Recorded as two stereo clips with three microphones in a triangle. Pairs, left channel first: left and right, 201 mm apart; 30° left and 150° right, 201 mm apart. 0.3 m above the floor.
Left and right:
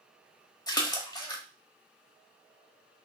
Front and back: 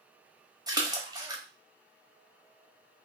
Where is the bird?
I don't hear a bird.